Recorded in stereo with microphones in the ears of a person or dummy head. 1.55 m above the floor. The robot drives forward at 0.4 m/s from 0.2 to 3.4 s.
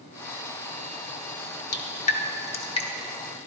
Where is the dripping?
35° left (ahead or behind), 0.8 m; by 2.9 s 25° left (ahead or behind), 1.2 m.